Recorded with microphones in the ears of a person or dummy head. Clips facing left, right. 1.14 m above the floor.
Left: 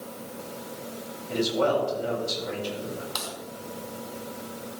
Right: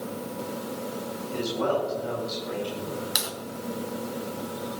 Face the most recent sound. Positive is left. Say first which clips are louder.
# right 2 dB
turn(degrees=-20)  # may be behind; listen again after turning